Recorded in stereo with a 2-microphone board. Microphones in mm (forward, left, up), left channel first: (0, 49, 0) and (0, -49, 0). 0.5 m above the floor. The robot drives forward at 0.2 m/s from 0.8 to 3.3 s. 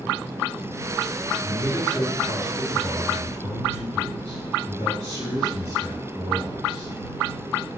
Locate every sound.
1.4 s a man speaking: 35° right (ahead or behind), 2.5 m